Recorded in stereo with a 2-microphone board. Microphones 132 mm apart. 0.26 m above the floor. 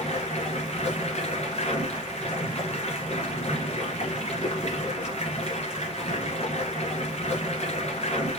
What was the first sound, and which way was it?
Running water, 55° left (ahead or behind).